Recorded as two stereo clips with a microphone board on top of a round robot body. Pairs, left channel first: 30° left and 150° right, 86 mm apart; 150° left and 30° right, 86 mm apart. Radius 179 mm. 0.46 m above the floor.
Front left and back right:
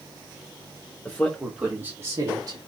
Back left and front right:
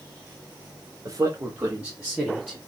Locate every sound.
1.1 s a man speaking: 25° right, 1.5 m; by 2.6 s 125° right, 2 m